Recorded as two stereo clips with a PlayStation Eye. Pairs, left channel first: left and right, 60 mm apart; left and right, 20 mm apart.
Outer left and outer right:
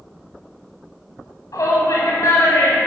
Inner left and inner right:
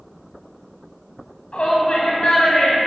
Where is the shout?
75° left (ahead or behind), 2.5 m; by 2.8 s 50° left (ahead or behind), 2.5 m.